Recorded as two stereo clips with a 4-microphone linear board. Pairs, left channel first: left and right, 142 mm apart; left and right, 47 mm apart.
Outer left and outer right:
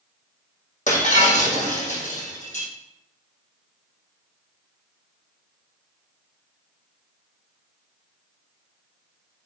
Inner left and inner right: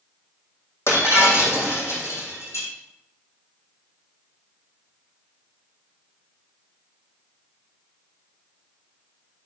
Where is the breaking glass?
60° left (ahead or behind), 2.5 m.